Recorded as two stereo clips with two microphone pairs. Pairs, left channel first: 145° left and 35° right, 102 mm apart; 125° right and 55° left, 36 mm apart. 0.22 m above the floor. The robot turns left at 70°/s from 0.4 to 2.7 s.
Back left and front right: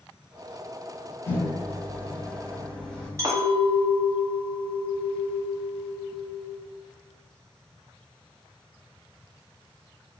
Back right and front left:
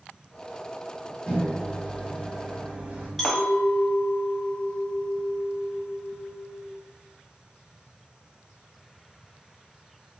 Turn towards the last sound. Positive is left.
turn(degrees=-45)